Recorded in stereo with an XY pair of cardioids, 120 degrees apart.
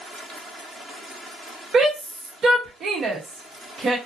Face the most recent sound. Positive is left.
turn(degrees=-45)